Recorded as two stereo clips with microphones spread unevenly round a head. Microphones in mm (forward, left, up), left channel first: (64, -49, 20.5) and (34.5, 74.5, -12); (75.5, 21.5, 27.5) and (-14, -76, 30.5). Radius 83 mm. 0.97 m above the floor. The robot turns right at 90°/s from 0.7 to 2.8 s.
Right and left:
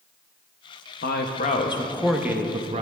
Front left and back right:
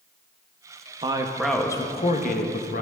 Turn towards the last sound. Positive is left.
turn(degrees=80)